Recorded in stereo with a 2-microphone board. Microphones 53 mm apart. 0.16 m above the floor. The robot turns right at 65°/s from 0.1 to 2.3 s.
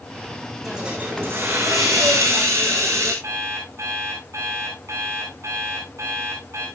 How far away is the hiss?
About 6.5 m.